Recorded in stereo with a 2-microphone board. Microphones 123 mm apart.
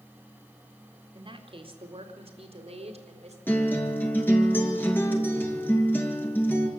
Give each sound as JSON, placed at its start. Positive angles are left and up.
{"t": 1.1, "sound": "a woman speaking", "side_deg": -40, "distance_m": 2.5}
{"t": 3.5, "sound": "a guitar", "side_deg": 15, "distance_m": 2.5}